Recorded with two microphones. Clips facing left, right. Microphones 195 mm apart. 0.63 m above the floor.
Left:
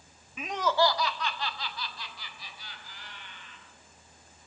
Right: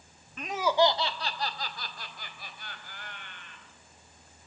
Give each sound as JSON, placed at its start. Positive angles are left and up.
{"t": 0.4, "sound": "laughter", "side_deg": 5, "distance_m": 1.2}